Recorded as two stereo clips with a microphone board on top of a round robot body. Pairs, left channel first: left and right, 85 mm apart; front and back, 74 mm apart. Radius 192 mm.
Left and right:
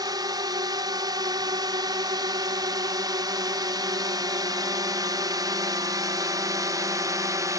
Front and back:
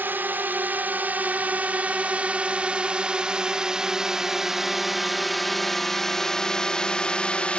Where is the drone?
120° right; by 7.6 s 70° right.